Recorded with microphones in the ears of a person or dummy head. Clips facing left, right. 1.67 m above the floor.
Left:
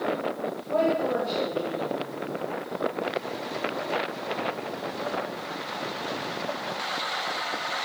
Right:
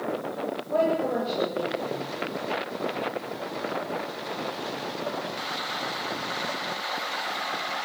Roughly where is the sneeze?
No sneeze in this recording.